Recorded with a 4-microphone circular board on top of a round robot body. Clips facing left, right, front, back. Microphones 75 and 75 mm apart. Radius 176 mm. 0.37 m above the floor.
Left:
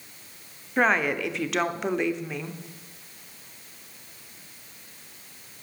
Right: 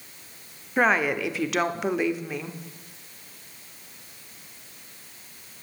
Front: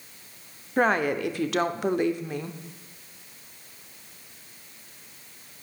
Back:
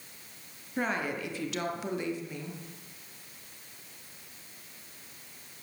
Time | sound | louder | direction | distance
0.8 | a woman speaking | right 1 dB, front 9 dB | 5° right | 1.2 m